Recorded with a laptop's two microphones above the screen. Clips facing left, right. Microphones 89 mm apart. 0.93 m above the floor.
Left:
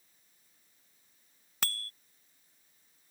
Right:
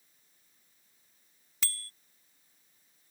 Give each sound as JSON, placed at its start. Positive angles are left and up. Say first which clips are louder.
{"t": 1.6, "sound": "a bicycle bell", "louder": "left 5 dB", "side_deg": 60}